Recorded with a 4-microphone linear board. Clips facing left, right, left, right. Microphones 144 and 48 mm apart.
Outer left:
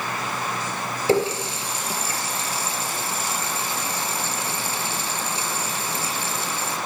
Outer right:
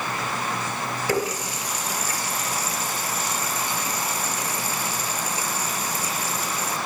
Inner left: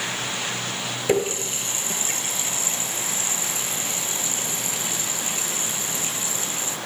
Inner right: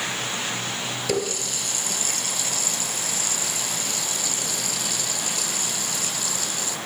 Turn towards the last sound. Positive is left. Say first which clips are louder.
# outer left 6 dB, inner left 5 dB
turn(degrees=30)  # may be behind; listen again after turning